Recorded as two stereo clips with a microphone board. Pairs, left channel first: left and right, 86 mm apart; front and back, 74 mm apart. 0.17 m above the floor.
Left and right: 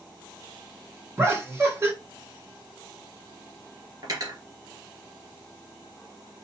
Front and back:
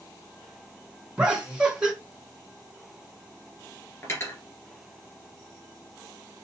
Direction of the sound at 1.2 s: 120° right.